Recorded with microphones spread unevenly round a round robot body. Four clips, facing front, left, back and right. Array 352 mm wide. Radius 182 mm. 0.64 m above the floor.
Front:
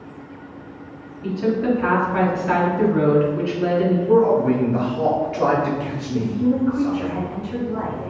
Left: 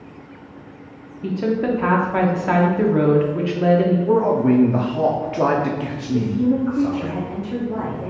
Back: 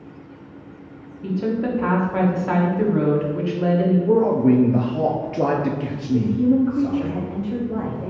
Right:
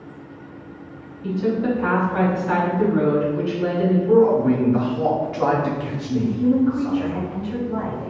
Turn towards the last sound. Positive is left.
turn(degrees=145)